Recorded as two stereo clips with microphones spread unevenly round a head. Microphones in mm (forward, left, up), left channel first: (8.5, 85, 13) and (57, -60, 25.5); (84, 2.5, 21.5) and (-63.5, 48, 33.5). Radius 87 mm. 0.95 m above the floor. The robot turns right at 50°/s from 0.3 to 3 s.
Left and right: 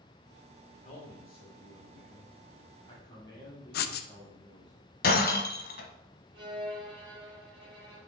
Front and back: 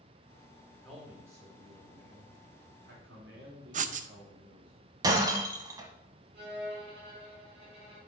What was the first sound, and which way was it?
A man speaking, 65° left.